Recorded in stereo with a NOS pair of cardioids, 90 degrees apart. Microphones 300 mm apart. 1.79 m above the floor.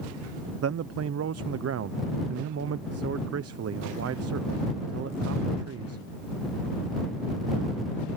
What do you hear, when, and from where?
0.6 s a man speaking: 50° right